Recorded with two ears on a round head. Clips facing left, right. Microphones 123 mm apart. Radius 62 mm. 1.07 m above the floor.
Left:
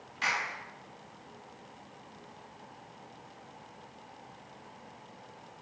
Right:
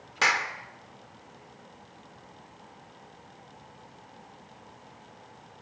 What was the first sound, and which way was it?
A clap, 85° right.